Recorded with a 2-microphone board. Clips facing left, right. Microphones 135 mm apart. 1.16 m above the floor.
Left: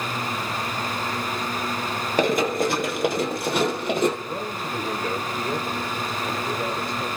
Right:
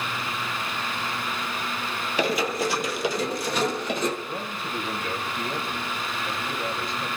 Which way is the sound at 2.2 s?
45° left (ahead or behind).